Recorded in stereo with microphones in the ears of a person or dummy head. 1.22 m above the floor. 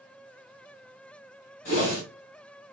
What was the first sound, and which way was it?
A whoosh, 45° left (ahead or behind).